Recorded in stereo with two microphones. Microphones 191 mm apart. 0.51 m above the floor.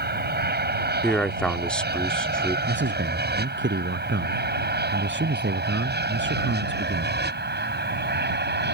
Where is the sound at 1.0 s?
5° left (ahead or behind).